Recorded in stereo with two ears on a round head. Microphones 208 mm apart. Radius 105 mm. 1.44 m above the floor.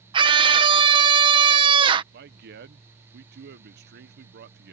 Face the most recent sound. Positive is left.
turn(degrees=-45)  # may be behind; listen again after turning